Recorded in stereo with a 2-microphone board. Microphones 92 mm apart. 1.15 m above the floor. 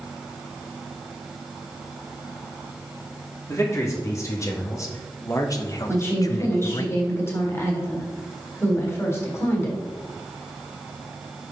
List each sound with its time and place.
3.5 s a man speaking: 30° left (ahead or behind), 3 m; by 6.9 s 40° left (ahead or behind), 0.6 m
5.9 s a woman speaking: 30° left (ahead or behind), 3.5 m